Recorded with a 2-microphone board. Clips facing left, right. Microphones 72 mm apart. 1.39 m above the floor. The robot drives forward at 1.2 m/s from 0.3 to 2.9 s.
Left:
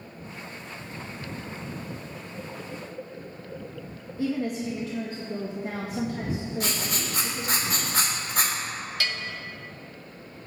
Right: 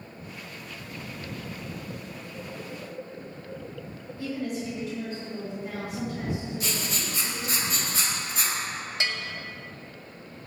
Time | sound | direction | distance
4.2 | a woman speaking | 40° left (ahead or behind) | 2 m
6.6 | writing | 55° left (ahead or behind) | 2.5 m
9.0 | a bell | 25° right (ahead or behind) | 0.8 m